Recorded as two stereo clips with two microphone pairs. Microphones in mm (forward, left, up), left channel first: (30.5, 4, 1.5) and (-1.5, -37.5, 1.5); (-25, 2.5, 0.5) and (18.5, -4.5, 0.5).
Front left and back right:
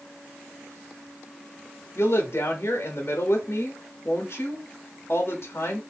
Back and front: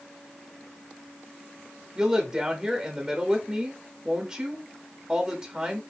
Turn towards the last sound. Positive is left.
turn(degrees=50)